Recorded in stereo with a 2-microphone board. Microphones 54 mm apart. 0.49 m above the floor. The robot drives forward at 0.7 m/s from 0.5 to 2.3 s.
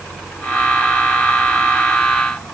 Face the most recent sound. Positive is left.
No sound to turn to.